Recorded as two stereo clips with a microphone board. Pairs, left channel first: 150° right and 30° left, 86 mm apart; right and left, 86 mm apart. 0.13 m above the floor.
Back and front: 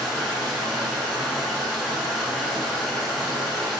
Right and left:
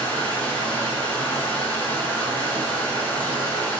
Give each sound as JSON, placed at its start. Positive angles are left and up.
{"t": 0.0, "sound": "running water", "azimuth_deg": -55, "distance_m": 0.9}